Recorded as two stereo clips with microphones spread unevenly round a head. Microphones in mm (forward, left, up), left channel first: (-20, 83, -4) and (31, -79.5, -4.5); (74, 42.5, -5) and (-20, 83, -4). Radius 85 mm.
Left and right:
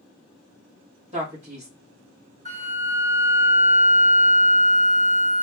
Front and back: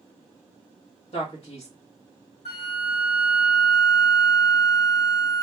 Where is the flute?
20° right, 2 m.